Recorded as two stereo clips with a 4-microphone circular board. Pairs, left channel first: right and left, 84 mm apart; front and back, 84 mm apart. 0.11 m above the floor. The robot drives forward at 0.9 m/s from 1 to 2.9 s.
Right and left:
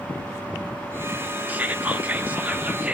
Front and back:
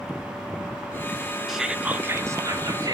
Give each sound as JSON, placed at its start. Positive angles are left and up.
{"t": 1.5, "sound": "whispering", "azimuth_deg": 100, "distance_m": 1.1}